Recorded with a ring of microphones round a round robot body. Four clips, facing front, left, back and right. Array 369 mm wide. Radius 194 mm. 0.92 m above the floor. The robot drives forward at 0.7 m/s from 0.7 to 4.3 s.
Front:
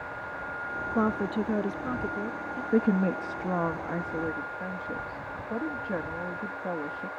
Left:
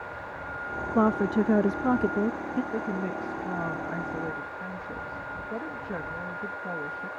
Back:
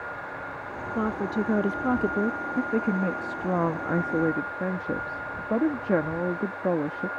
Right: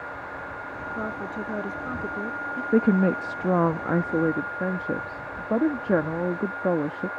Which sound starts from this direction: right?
A woman speaking, at 2.7 s.